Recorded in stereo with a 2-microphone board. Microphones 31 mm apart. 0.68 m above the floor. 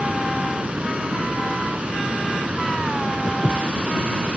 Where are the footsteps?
65° left (ahead or behind).